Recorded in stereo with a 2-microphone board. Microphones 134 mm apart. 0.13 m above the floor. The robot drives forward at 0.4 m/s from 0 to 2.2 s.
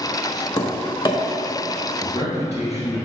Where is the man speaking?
55° left (ahead or behind), 2.5 m; by 3.1 s 50° left (ahead or behind), 2.5 m.